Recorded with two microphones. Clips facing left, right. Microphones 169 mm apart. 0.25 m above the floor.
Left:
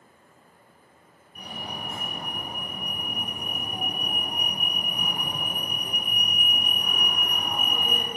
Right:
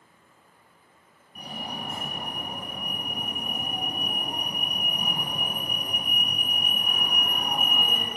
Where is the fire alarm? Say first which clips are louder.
Right 1 dB; 45° right (ahead or behind), 3.5 m.